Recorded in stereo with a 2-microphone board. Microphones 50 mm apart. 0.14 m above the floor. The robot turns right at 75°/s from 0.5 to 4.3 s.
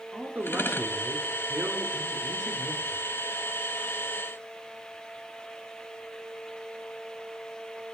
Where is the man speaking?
125° right, 1.8 m; by 3.0 s 65° left, 1.8 m.